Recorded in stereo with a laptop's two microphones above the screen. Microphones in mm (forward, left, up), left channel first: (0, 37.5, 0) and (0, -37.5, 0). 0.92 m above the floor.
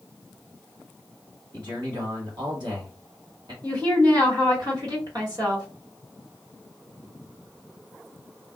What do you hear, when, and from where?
1.5 s a man speaking: 65° right (ahead or behind), 1.7 m
3.6 s a woman speaking: 55° right (ahead or behind), 1.5 m